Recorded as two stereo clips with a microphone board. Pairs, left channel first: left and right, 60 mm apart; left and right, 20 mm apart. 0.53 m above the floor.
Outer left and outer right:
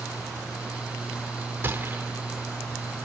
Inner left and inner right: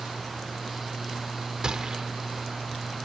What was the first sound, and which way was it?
A gunshot, 35° right (ahead or behind).